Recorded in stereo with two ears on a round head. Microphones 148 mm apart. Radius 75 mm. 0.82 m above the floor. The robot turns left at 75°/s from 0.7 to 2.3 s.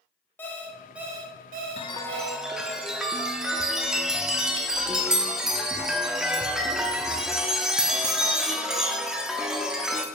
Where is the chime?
35° left, 0.7 m; by 10.1 s 5° right, 0.7 m.